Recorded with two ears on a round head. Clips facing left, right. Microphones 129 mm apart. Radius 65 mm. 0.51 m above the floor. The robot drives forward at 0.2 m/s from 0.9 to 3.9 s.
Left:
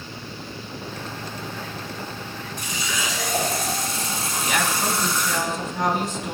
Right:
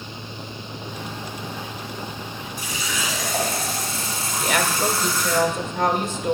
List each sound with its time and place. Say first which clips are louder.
2.6 s a running tap: even; 5° right (ahead or behind), 3 m
4.4 s a woman speaking: right 3 dB; 45° right (ahead or behind), 1.4 m